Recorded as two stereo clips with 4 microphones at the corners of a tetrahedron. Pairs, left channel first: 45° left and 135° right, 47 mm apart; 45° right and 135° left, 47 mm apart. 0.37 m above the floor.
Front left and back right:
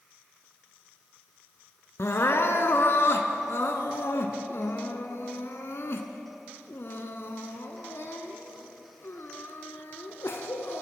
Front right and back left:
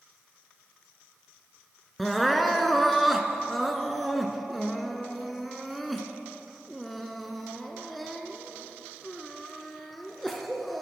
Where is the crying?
45° left, 0.7 m.